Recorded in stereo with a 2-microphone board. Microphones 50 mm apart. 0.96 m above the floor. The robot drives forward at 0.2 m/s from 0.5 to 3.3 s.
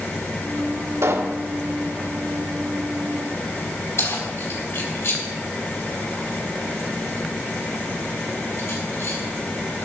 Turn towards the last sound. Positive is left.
turn(degrees=60)  # may be behind; listen again after turning